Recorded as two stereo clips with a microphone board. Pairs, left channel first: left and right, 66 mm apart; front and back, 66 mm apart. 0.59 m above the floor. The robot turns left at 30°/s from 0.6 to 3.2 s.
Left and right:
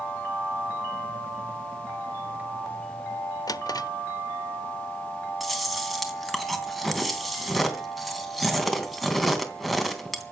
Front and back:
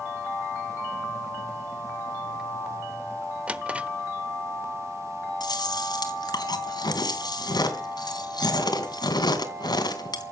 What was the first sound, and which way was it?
A drawer, 110° left.